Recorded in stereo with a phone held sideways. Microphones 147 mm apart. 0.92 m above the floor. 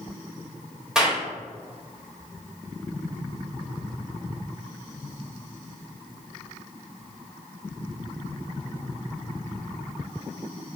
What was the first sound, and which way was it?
A clap, 5° right (ahead or behind).